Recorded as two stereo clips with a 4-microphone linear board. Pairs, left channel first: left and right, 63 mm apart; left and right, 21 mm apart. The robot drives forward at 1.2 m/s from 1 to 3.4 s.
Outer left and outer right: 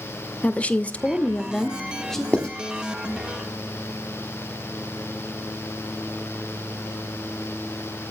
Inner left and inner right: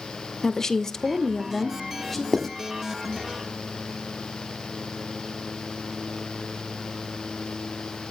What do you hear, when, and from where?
0.4 s a woman speaking: 20° left (ahead or behind), 0.6 m; by 2.2 s 5° left (ahead or behind), 1.8 m
2.3 s writing: 15° left (ahead or behind), 1.3 m; by 2.5 s 20° left (ahead or behind), 1.1 m